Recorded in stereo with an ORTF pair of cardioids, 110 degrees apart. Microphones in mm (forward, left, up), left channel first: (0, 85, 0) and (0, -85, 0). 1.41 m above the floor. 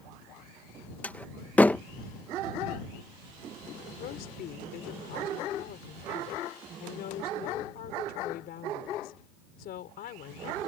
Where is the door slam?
10° left.